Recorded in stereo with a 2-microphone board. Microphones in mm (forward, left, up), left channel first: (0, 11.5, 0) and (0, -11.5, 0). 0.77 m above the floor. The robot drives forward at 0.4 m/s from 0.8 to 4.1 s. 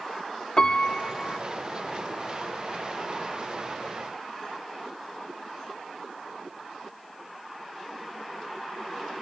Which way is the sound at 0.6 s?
35° left (ahead or behind).